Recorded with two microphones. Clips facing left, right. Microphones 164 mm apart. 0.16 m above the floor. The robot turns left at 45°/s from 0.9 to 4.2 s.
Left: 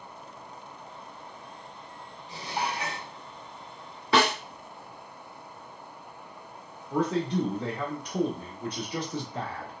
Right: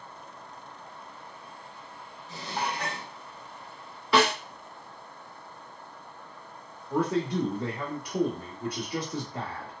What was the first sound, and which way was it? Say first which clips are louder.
Dishes clattering: left 1 dB; 35° left.